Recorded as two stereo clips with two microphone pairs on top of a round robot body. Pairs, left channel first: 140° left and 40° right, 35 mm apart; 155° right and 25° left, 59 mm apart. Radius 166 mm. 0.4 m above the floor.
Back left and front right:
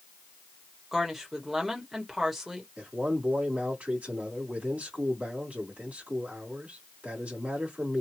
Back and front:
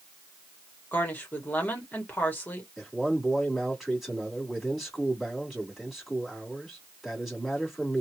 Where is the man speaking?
65° right, 2 m.